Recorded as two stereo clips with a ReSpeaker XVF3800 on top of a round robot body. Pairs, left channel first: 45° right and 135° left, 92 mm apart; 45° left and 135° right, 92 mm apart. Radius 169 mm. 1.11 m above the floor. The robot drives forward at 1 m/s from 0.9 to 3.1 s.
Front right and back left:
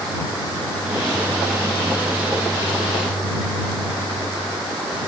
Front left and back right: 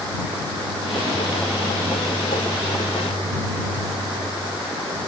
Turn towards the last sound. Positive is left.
No sound to turn to.